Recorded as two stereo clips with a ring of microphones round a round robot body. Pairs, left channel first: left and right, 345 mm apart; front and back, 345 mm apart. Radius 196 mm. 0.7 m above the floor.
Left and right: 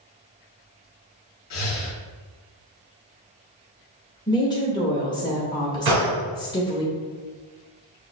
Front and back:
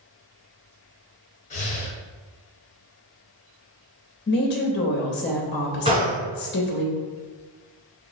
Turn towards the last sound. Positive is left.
turn(degrees=-105)